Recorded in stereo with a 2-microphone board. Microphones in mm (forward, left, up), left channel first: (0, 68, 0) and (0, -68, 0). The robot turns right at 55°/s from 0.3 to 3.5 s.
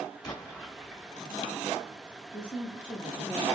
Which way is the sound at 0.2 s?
150° left.